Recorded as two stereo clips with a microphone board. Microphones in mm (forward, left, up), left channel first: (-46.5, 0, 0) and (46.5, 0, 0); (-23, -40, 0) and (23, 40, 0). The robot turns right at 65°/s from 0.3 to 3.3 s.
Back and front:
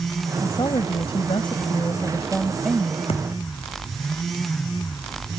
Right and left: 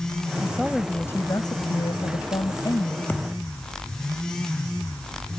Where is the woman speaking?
130° left; by 3.0 s 60° right.